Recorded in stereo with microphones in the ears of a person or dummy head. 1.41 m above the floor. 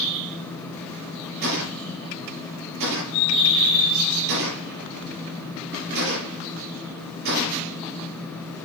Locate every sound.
1.4 s a gunshot: 55° right (ahead or behind), 7.5 m